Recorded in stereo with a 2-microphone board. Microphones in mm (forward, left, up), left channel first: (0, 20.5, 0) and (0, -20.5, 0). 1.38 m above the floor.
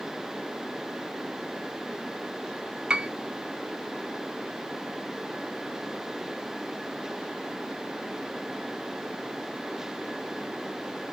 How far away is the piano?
About 0.5 m.